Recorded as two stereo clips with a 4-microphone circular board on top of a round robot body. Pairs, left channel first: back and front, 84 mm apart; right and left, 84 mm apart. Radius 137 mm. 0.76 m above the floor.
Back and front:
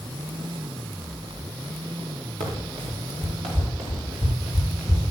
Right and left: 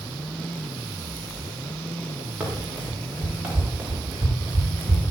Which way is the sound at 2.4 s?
10° left.